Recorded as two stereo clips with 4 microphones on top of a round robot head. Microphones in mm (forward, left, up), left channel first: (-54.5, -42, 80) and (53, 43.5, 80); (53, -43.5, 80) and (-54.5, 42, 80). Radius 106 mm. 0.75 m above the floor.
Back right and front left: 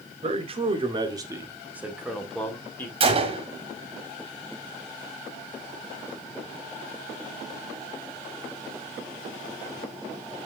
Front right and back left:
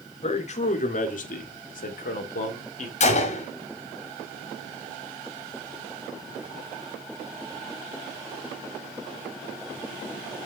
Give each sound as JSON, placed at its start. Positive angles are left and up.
{"t": 0.2, "sound": "a man speaking", "azimuth_deg": 0, "distance_m": 1.9}
{"t": 3.0, "sound": "a gunshot", "azimuth_deg": -5, "distance_m": 2.0}